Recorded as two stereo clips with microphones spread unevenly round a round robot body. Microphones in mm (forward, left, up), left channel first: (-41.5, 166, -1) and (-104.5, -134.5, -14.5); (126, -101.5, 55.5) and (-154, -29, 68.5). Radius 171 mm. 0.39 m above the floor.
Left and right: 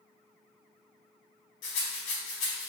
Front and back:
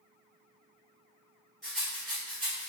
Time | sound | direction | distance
1.6 | a rattle | 75° left | 1.0 m